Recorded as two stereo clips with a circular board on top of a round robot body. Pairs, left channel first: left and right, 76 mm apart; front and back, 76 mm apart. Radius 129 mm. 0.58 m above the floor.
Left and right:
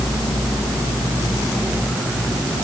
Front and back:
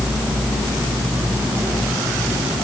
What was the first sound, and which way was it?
Only background noise.